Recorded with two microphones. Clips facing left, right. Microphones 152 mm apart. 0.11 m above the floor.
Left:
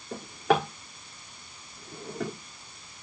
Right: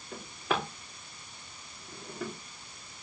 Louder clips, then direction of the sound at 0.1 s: Left 8 dB; 80° left.